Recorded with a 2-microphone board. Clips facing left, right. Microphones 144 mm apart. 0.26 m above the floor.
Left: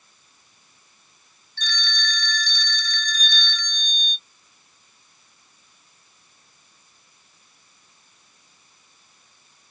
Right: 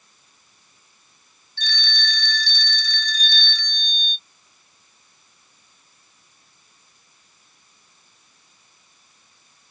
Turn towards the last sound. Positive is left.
turn(degrees=50)  # may be behind; listen again after turning